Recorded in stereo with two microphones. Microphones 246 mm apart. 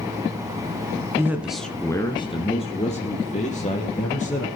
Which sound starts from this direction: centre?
A man speaking, at 1.2 s.